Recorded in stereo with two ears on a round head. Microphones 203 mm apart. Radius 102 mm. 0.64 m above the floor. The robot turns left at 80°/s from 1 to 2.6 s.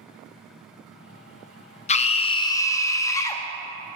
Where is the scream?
30° left (ahead or behind), 0.5 m; by 3.4 s 15° left (ahead or behind), 0.5 m.